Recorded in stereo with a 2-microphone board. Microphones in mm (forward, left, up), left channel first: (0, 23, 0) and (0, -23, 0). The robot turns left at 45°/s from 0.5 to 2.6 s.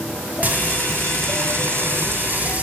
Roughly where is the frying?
Ahead right.